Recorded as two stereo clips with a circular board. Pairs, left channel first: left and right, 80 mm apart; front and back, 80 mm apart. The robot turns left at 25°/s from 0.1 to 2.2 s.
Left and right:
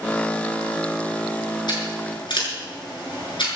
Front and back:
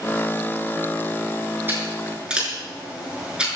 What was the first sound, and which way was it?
Scissors, 115° left.